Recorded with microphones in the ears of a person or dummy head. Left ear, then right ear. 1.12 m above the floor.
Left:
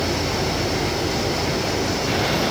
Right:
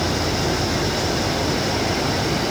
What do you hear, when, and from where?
0.0 s an insect: centre (ahead or behind)